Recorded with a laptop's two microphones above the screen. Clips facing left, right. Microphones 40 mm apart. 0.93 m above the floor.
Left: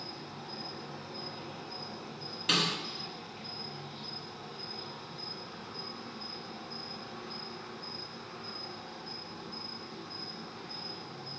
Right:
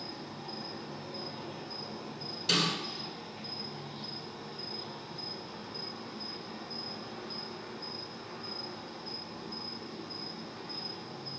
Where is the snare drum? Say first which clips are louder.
Even; 45° left (ahead or behind), 1.6 m.